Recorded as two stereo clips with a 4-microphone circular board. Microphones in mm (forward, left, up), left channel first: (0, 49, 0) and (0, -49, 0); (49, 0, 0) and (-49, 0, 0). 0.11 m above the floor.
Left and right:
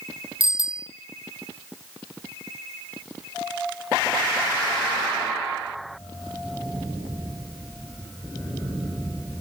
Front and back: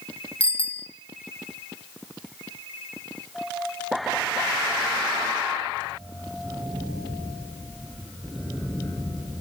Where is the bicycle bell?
75° right, 3 m.